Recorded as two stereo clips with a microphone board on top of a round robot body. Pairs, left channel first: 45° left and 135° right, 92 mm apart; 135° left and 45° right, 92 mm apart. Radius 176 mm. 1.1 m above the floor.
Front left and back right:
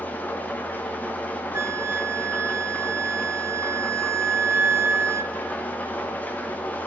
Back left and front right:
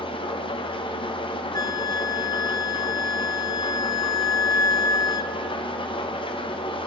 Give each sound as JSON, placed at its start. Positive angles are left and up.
{"t": 0.0, "sound": "an engine running", "azimuth_deg": 115, "distance_m": 1.1}
{"t": 1.5, "sound": "a flute", "azimuth_deg": 170, "distance_m": 0.9}